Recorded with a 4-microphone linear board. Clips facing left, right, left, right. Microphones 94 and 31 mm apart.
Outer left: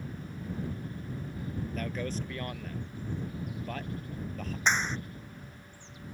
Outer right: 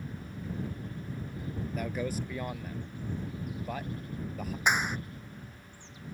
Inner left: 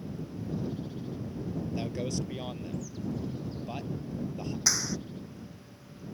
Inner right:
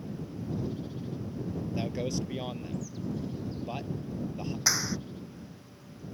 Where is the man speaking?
10° right (ahead or behind).